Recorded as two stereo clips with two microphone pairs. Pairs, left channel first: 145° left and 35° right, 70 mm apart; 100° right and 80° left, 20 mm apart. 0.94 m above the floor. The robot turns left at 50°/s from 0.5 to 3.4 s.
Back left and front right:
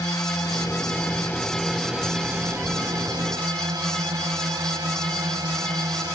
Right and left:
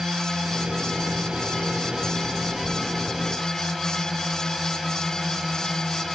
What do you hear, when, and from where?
0.0 s a drone: 115° left; by 6.2 s 30° right